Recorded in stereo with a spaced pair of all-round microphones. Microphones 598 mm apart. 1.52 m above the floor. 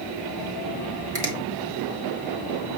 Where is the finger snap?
65° right (ahead or behind), 2 m.